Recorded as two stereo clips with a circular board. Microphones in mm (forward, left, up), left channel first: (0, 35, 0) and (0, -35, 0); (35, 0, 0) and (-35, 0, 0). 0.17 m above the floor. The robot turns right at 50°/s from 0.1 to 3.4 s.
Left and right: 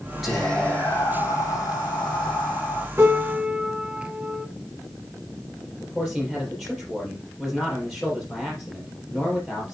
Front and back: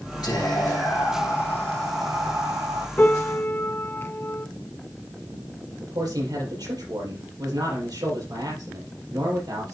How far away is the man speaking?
About 5 m.